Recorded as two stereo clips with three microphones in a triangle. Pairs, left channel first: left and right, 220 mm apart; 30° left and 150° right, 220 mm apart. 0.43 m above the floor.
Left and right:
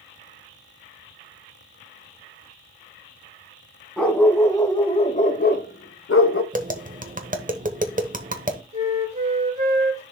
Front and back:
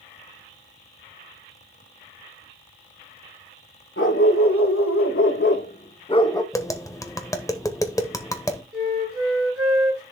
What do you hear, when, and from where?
4.0 s a dog barking: 5° left, 1.4 m; by 6.4 s 105° left, 0.9 m
6.5 s tapping: 45° right, 1.1 m
8.7 s a flute: 150° right, 4.5 m